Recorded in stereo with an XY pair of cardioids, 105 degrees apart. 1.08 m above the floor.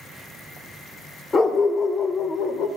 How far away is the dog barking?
About 1.7 m.